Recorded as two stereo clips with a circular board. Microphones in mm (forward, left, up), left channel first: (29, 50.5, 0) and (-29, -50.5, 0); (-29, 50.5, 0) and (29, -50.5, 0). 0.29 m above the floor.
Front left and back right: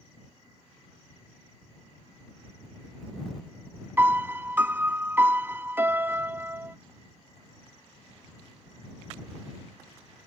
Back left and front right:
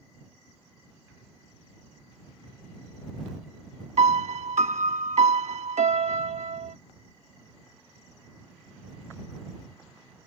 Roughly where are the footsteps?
No footsteps in this recording.